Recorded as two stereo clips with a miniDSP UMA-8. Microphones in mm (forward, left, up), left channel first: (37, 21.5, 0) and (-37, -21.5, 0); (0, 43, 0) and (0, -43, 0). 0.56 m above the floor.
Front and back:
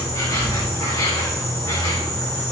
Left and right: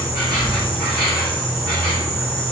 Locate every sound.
0.0 s an insect: 80° left, 4 m